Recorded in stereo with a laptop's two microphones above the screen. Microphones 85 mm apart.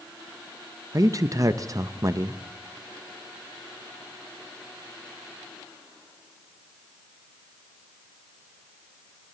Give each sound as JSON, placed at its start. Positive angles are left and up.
{"t": 0.9, "sound": "a man speaking", "side_deg": -40, "distance_m": 0.5}